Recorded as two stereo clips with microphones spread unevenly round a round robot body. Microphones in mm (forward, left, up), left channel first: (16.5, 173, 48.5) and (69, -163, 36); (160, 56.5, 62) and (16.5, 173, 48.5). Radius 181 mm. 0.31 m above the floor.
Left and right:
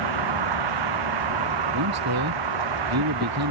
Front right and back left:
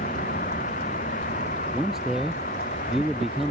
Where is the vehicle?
105° right.